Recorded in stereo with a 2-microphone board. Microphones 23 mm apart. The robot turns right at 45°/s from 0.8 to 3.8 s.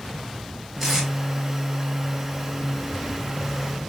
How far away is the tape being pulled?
About 1.1 m.